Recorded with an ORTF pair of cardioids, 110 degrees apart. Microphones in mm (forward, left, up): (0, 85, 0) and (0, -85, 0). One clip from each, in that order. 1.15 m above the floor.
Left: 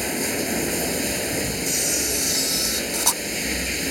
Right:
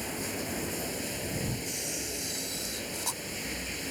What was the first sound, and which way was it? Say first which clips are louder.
Running water: left 10 dB; 60° left.